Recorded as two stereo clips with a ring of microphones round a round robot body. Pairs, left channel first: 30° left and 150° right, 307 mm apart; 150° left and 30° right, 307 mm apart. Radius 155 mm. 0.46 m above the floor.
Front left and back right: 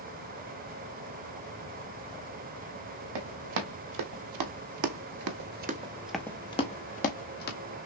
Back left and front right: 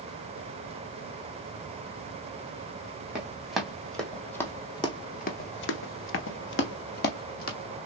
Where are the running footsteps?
115° right, 1.5 m; by 7.6 s 90° left, 1.1 m.